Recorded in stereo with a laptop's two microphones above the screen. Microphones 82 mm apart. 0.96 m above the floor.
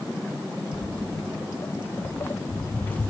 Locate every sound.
0.7 s footsteps: 25° left (ahead or behind), 2.5 m; by 3.1 s 20° left (ahead or behind), 1.0 m